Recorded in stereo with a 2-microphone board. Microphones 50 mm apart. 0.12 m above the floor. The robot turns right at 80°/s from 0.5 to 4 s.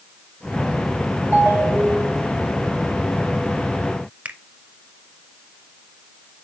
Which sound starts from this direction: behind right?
A ringtone, at 1.3 s.